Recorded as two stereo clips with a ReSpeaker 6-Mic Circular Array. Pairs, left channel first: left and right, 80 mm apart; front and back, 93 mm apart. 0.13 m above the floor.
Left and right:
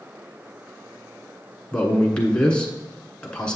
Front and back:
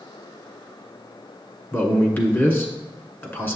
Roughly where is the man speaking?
Ahead left.